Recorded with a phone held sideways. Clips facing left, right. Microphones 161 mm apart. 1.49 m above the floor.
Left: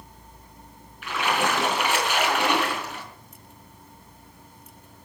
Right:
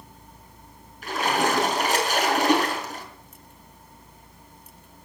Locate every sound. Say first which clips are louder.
1.0 s a splash: right 2 dB; 40° right (ahead or behind), 4.5 m